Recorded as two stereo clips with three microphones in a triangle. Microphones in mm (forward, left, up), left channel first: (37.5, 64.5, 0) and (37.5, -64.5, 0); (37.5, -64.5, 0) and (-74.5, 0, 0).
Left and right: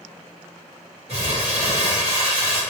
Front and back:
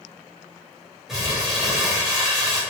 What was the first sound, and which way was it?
Crumpling, 125° right.